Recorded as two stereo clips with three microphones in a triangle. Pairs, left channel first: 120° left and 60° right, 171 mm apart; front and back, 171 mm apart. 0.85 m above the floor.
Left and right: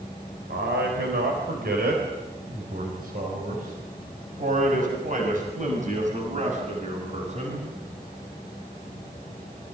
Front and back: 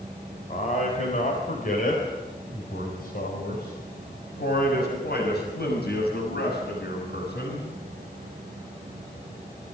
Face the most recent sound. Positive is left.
turn(degrees=-15)